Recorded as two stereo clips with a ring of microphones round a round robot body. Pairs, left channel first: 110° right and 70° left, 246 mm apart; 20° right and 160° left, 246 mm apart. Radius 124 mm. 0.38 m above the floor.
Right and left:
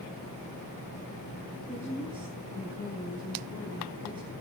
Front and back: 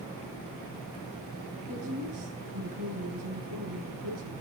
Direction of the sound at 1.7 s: 135° left.